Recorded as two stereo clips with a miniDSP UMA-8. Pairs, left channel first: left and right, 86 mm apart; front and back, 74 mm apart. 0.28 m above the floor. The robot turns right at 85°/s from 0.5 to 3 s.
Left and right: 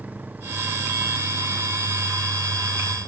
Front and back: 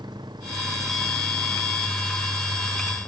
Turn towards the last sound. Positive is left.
turn(degrees=55)